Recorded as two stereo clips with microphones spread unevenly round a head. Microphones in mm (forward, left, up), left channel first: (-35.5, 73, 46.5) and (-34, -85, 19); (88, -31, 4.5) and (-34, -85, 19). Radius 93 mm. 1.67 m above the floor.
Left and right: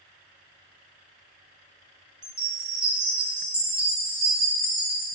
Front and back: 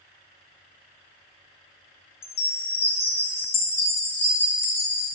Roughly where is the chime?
Ahead.